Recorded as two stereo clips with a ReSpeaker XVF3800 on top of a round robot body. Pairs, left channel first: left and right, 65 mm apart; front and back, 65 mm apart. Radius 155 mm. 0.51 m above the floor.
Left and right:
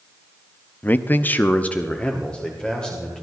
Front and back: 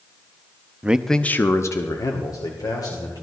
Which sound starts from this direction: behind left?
A man speaking, at 0.8 s.